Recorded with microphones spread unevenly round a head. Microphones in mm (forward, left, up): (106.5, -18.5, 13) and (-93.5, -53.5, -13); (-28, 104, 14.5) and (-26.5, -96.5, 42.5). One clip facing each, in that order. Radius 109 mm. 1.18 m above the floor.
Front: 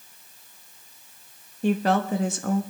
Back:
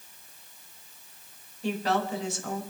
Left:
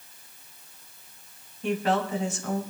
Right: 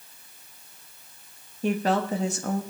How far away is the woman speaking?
About 1.4 m.